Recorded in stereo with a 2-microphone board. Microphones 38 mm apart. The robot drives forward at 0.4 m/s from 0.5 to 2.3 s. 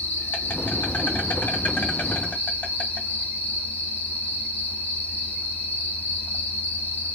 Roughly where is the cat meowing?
I don't hear a cat meowing.